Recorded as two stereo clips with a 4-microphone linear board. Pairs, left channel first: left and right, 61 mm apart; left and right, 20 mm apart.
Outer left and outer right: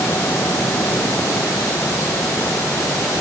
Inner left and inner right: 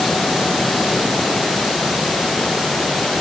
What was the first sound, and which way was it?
Only background noise.